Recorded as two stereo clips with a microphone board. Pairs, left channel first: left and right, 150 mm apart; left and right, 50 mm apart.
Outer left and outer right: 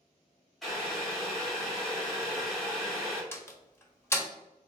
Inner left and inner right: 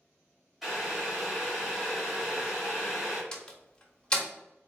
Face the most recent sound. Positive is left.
turn(degrees=15)  # may be behind; listen again after turning